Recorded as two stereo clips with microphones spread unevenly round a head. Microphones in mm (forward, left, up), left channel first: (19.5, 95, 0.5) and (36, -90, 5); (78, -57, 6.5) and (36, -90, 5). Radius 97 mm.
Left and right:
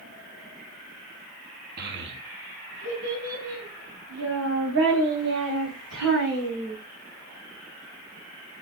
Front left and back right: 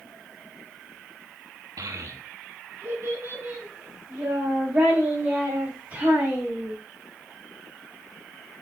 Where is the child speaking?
130° right, 0.9 m; by 6.7 s 80° right, 4.5 m.